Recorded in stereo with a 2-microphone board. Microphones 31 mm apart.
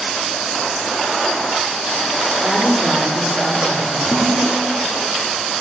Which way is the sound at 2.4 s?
20° right (ahead or behind).